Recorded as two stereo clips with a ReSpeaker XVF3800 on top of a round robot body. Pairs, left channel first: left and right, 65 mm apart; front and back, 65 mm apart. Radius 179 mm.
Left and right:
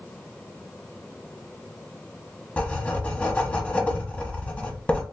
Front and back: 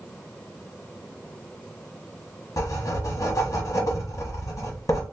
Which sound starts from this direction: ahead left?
Writing, at 2.6 s.